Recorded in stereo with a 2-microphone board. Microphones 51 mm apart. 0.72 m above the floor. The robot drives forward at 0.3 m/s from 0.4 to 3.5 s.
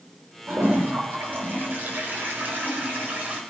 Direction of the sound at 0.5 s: 45° right (ahead or behind).